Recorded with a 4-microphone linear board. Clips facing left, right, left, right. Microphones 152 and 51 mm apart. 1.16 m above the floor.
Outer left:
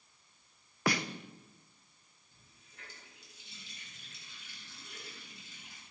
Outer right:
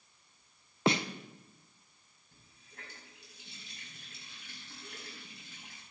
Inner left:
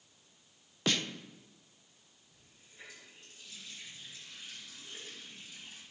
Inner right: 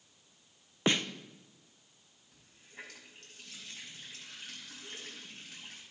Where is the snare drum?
25° right (ahead or behind), 0.7 m.